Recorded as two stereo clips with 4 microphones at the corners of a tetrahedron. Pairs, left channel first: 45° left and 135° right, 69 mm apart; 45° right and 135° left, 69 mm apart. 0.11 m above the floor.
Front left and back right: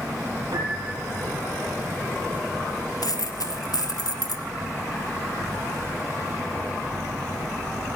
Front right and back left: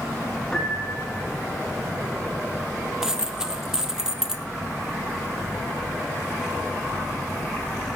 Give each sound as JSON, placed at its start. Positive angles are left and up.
{"t": 0.5, "sound": "a piano", "azimuth_deg": -120, "distance_m": 5.0}
{"t": 3.0, "sound": "a dropped coin", "azimuth_deg": 55, "distance_m": 1.0}